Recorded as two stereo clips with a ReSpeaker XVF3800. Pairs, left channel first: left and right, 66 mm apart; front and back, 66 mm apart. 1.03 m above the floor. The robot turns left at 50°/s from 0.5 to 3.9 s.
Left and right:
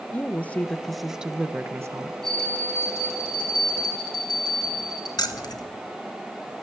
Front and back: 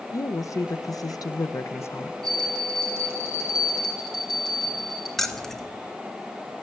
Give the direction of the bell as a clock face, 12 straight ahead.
6 o'clock.